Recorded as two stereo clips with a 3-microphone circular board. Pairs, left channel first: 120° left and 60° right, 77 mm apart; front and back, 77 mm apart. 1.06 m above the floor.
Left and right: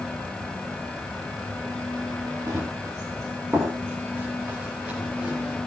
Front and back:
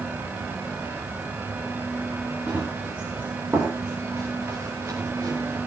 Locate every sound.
2.5 s running footsteps: 110° right, 5.5 m; by 5.6 s 135° right, 6 m